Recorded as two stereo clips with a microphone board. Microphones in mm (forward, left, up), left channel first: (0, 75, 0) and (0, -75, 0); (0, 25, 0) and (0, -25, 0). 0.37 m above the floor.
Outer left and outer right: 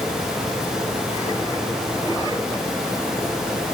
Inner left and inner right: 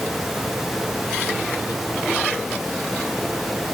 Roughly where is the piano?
No piano in this recording.